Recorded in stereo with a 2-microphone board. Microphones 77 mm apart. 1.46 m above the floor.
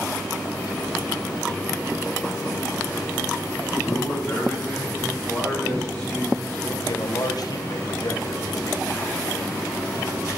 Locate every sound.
3.8 s a man speaking: 15° left (ahead or behind), 4 m; by 6.7 s centre (ahead or behind), 5.5 m
6.8 s a man speaking: 60° left (ahead or behind), 1.1 m